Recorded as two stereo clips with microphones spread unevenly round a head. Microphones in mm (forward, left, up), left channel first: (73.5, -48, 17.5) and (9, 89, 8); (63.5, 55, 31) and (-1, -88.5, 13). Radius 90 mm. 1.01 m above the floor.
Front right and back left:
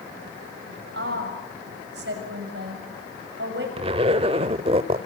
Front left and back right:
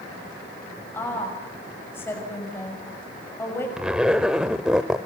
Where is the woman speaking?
145° left, 6 m.